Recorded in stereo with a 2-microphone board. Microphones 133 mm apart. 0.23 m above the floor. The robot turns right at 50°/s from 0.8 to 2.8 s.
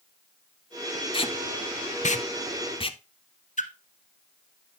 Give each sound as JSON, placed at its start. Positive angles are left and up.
{"t": 1.1, "sound": "tape being pulled", "side_deg": 40, "distance_m": 0.6}
{"t": 3.6, "sound": "a splash", "side_deg": 65, "distance_m": 0.9}